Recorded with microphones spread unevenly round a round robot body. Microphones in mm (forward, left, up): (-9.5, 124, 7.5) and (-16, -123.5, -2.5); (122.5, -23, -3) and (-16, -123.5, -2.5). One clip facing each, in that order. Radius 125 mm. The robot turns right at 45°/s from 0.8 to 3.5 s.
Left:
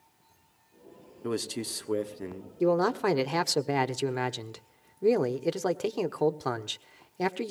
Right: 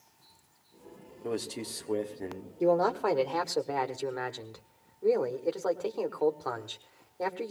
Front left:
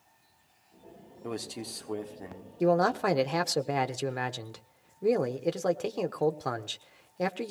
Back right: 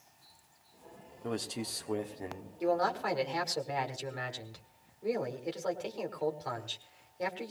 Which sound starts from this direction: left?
A man speaking, at 1.2 s.